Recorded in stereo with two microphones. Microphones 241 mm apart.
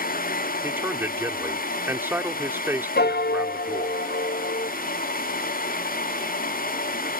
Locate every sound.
0.6 s a man speaking: 10° right (ahead or behind)
3.0 s a piano: 45° left (ahead or behind)